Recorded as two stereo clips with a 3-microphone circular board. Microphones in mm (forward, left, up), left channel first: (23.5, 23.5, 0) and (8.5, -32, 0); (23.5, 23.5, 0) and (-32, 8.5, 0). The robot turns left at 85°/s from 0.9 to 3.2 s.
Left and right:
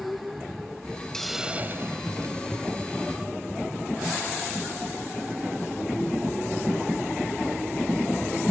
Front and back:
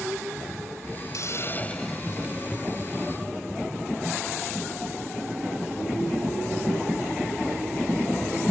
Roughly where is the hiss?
Ahead.